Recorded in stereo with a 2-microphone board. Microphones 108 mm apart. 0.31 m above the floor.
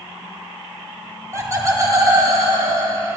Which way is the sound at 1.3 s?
30° right (ahead or behind).